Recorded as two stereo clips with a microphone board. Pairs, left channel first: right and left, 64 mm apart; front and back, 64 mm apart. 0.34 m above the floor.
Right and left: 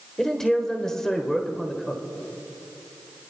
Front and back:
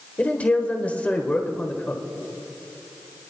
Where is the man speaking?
20° right, 1.1 m.